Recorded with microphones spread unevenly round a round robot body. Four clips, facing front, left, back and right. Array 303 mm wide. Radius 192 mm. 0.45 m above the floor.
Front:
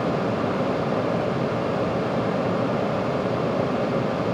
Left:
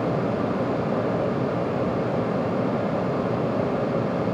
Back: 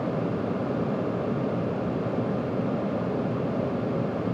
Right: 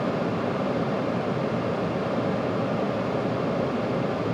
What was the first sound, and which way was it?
Only background noise.